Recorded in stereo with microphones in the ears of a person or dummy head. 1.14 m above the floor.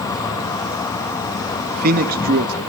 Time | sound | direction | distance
0.0 | an insect | 25° left (ahead or behind) | 1.2 m
1.7 | a man speaking | 55° right (ahead or behind) | 1.8 m